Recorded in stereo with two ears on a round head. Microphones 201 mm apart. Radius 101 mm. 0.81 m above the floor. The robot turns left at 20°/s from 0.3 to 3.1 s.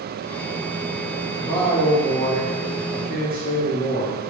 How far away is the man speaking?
About 1.1 m.